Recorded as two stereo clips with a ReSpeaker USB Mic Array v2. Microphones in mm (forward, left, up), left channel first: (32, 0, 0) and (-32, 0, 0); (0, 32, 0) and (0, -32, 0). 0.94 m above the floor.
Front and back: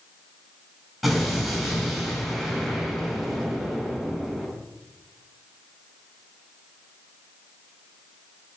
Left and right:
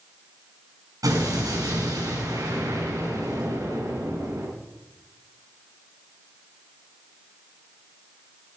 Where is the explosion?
90° right, 8.5 m.